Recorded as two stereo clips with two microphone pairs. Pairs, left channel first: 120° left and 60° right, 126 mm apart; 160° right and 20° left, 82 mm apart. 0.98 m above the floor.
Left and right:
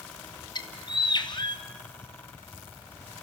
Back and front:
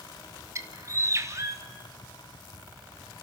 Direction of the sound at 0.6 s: 70° left.